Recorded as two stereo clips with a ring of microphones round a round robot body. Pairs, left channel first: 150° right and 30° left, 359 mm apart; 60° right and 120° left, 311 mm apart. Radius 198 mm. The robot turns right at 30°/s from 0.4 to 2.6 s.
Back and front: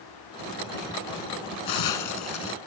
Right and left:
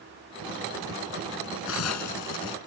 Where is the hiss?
120° right; by 2.6 s 90° right.